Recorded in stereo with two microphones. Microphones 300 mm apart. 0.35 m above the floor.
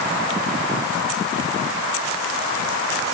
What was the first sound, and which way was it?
Only background noise.